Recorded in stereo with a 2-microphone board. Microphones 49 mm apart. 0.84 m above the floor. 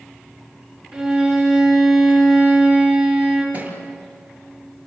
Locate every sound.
0.9 s a violin: 10° right (ahead or behind), 6 m
3.5 s a thud: 35° right (ahead or behind), 6 m